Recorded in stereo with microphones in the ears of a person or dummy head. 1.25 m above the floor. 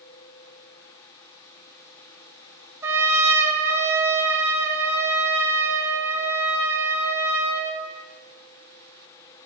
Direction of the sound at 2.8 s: 10° right (ahead or behind).